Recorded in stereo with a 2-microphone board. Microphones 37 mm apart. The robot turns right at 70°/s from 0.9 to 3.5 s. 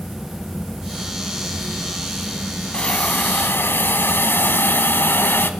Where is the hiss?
25° left, 0.8 m; by 5.5 s 80° left, 0.8 m.